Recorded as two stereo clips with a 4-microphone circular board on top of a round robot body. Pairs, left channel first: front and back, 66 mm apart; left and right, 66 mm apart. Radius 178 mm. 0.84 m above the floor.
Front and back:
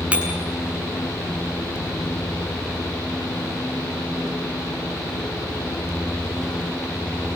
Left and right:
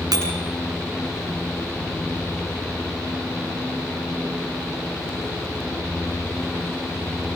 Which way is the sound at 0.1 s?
110° right.